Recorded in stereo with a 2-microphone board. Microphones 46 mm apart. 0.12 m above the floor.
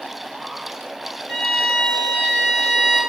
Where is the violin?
10° right (ahead or behind), 3.5 m.